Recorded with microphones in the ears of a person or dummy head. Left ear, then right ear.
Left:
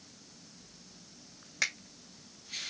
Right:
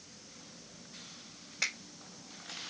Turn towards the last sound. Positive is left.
turn(degrees=45)  # may be behind; listen again after turning